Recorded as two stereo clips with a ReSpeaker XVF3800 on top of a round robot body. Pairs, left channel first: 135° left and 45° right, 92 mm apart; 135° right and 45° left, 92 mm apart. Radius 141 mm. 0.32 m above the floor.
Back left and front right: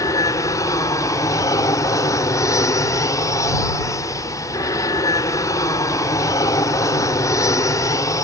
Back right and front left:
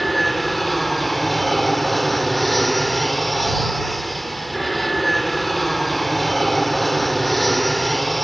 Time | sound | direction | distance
0.0 | an aircraft | 135° left | ?